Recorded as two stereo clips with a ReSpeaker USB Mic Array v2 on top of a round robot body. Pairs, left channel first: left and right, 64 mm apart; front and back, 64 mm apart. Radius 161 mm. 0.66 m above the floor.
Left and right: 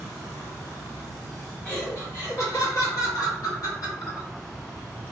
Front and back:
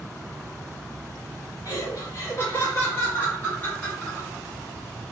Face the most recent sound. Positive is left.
turn(degrees=75)